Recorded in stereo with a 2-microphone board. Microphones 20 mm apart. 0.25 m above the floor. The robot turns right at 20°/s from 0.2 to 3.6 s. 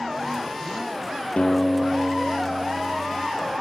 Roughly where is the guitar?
Left.